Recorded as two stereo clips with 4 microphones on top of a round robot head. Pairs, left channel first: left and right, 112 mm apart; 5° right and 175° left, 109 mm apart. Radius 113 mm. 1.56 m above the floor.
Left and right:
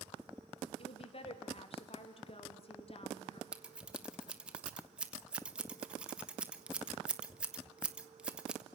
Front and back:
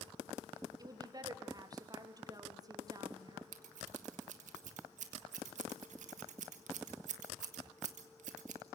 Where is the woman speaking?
120° left, 3 m.